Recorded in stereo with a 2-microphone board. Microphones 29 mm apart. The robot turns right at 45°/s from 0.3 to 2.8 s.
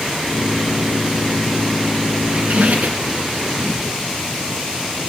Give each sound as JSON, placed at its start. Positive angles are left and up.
{"t": 2.3, "sound": "a squeak", "side_deg": -40, "distance_m": 1.8}